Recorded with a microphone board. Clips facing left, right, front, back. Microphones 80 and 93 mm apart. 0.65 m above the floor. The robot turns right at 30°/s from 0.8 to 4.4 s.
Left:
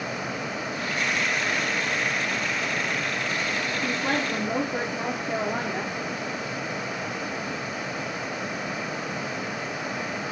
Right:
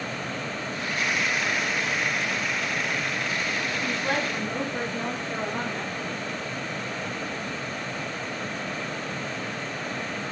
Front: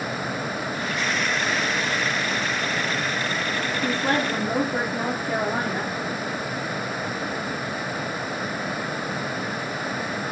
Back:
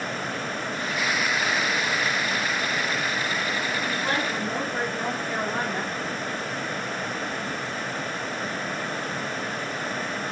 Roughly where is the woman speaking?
Ahead left.